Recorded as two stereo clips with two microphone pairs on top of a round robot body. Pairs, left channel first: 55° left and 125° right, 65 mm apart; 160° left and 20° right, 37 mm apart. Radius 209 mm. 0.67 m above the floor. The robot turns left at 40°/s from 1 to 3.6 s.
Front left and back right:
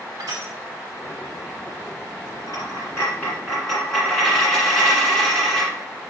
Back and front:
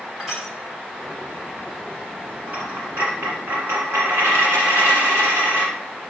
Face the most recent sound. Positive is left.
turn(degrees=-30)